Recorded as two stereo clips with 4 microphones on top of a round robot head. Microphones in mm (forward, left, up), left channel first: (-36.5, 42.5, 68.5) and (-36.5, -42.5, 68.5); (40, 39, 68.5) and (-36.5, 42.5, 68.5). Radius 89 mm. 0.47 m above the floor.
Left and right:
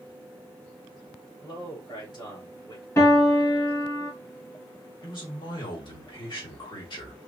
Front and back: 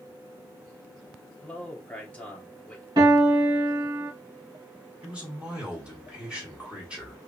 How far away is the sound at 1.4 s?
About 3 m.